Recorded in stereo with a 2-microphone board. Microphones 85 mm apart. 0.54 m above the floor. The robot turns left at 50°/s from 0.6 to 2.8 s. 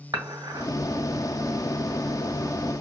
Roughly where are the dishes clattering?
Right.